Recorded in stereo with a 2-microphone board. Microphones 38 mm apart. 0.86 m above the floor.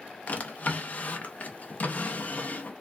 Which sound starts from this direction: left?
A drawer, at 0.3 s.